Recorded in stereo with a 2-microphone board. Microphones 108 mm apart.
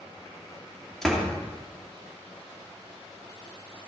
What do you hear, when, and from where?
1.0 s a door slam: 5° left (ahead or behind), 2.5 m